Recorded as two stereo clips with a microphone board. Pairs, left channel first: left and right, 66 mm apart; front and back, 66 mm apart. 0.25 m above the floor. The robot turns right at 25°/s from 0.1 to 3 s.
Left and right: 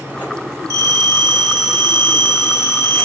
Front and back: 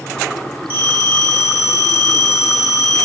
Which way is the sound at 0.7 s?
110° left.